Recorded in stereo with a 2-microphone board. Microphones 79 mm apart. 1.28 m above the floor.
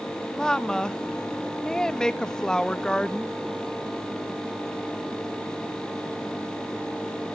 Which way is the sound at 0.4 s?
10° left (ahead or behind).